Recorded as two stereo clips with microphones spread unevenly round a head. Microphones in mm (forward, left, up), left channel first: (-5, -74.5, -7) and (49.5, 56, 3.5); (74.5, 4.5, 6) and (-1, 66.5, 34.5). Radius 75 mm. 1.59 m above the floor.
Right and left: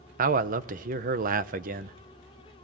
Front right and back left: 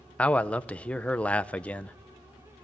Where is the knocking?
I don't hear knocking.